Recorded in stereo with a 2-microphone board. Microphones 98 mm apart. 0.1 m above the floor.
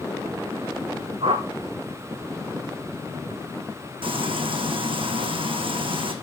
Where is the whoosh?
75° right (ahead or behind), 1.9 m.